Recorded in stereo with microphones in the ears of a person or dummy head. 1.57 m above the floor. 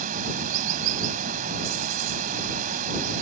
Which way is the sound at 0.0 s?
45° right (ahead or behind).